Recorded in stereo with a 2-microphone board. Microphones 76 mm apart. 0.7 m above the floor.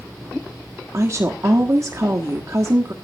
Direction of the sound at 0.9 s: 40° right (ahead or behind).